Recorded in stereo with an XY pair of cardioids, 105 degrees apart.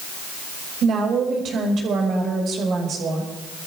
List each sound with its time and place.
0.8 s a woman speaking: 60° right, 5.5 m